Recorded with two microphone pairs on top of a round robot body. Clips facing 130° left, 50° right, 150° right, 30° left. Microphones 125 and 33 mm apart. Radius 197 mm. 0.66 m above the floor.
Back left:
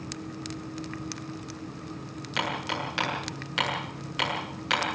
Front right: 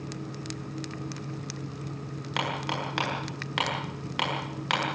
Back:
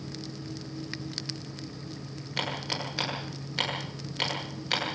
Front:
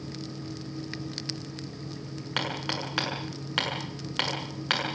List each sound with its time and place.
2.4 s hammering: 5° right, 7.5 m